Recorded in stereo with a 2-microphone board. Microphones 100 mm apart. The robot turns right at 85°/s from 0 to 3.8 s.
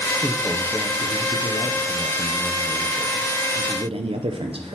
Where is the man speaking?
25° right, 0.5 m; by 4.8 s 80° right, 0.5 m.